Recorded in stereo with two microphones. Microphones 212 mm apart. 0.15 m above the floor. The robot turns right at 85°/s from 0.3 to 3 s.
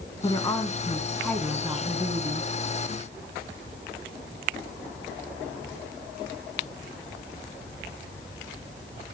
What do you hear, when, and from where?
0.2 s a woman speaking: 20° left (ahead or behind), 1.2 m; by 2.5 s 20° right (ahead or behind), 1.2 m